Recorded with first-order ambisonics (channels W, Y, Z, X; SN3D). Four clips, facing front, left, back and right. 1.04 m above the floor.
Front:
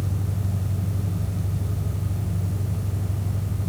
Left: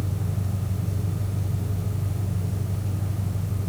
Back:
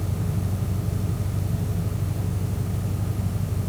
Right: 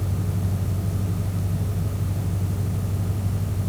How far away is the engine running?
About 7.5 m.